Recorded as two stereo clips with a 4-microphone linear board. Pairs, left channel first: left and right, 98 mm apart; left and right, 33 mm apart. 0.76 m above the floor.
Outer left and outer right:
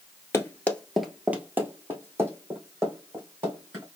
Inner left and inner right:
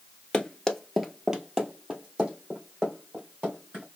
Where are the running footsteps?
30° left (ahead or behind), 0.9 m; by 3.8 s 30° right (ahead or behind), 4 m.